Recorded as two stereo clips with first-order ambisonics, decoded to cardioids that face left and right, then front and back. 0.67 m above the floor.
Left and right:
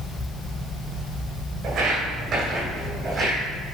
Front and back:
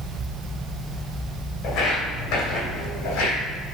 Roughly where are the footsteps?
Ahead right.